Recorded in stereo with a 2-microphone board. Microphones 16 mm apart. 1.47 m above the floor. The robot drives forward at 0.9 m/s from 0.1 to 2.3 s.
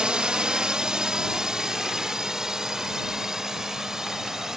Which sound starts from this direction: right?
A drone, at 0.0 s.